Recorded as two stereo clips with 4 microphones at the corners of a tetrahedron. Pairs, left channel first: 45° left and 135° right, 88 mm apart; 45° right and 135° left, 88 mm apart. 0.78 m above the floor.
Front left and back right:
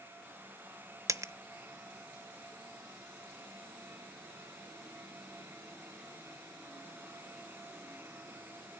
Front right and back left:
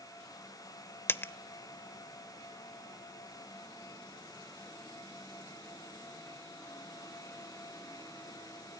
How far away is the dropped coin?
About 0.6 m.